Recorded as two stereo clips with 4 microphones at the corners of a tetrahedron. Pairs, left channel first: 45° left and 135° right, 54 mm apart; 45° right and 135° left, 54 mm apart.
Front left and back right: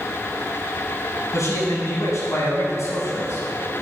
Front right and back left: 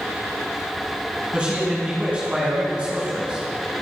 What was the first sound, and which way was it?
A man speaking, 65° left.